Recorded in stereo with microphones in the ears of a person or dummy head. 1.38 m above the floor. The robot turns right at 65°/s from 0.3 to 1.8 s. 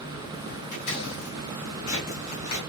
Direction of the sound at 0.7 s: 50° left (ahead or behind).